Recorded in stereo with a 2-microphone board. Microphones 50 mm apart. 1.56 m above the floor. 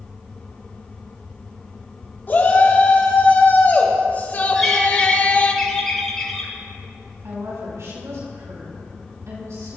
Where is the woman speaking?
80° right, 5 m.